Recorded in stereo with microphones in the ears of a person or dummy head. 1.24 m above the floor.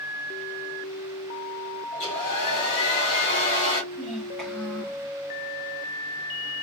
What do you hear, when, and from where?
1.9 s a hair dryer: 35° left (ahead or behind), 1.8 m
3.9 s a child speaking: 5° right (ahead or behind), 1.4 m